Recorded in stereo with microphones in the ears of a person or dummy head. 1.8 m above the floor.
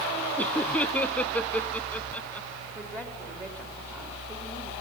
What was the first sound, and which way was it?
Laughter, 10° left (ahead or behind).